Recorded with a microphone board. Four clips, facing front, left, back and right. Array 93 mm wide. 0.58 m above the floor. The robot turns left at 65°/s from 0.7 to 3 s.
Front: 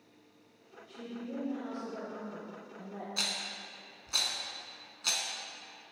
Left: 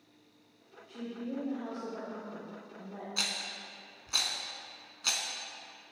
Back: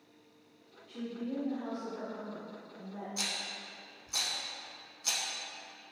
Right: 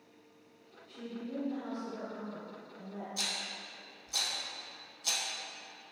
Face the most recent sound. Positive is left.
turn(degrees=60)